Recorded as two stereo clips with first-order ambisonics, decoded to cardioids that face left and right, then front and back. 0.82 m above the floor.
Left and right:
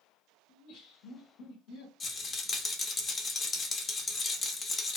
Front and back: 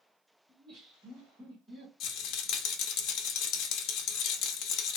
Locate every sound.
0.5 s laughter: 130° left, 1.4 m; by 1.9 s 110° left, 1.9 m
2.0 s a rattle: 25° left, 0.7 m